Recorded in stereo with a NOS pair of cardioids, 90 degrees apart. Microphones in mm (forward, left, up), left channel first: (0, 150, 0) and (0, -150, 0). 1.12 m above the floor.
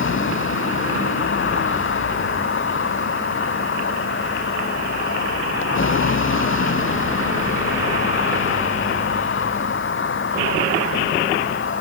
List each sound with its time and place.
0.0 s a vehicle: 40° left